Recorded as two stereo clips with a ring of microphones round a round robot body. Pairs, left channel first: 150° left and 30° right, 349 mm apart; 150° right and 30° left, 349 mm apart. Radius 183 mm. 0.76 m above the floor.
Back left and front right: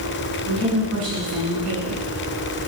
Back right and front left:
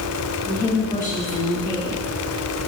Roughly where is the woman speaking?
Right.